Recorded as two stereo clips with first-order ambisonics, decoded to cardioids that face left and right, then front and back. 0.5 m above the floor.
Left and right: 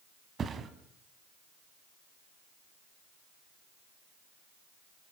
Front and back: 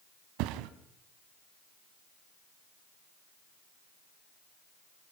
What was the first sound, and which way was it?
A thud, 155° right.